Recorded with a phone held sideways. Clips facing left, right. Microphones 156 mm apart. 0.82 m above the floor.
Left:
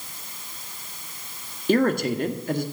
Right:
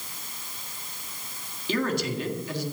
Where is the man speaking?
55° left (ahead or behind), 1.5 m.